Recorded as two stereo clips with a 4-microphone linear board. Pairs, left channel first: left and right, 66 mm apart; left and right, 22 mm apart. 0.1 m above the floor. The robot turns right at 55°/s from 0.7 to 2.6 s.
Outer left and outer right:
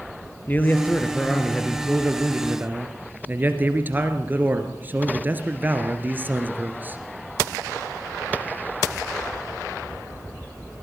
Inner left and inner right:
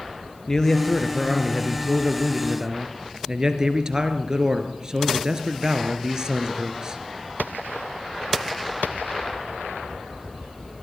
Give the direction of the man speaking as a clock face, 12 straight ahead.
8 o'clock.